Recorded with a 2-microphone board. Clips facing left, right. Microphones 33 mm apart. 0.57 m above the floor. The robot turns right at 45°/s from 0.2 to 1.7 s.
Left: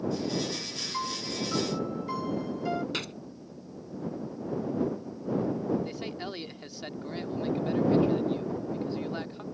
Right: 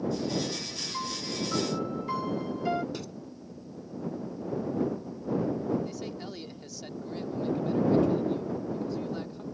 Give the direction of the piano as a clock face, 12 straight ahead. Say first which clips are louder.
Left 1 dB; 7 o'clock.